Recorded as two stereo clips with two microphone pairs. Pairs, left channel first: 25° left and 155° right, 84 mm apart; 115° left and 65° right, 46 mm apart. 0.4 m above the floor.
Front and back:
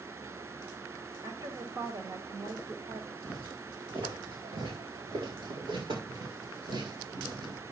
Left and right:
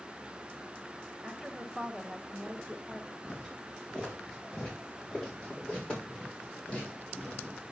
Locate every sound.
1.2 s a woman speaking: 150° right, 2 m
3.2 s footsteps: 155° right, 4.5 m; by 7.6 s straight behind, 6 m